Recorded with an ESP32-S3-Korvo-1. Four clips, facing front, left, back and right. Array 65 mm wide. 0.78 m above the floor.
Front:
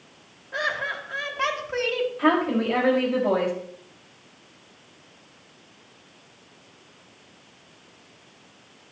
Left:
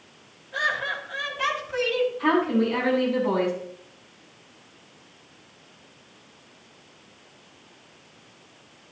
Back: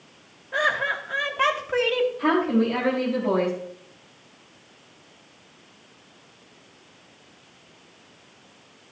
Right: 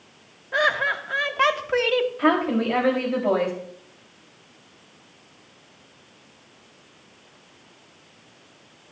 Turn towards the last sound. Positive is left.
turn(degrees=-60)